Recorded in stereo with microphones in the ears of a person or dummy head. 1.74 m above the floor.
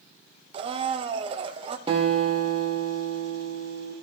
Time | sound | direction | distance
0.5 | a blender | 30° right (ahead or behind) | 0.7 m
1.9 | a guitar | 30° right (ahead or behind) | 1.9 m